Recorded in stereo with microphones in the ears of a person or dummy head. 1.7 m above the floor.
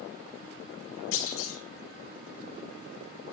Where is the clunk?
75° left (ahead or behind), 2.0 m.